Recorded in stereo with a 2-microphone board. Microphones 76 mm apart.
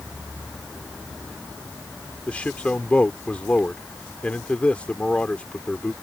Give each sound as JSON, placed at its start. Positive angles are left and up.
{"t": 2.3, "sound": "a man speaking", "side_deg": 20}